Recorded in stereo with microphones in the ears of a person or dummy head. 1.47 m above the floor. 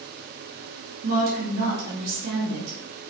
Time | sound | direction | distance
1.0 | a woman speaking | 60° right (ahead or behind) | 2.5 m